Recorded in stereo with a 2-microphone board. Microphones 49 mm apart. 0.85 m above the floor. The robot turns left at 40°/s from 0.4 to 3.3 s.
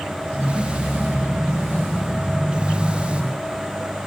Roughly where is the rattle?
No rattle in this recording.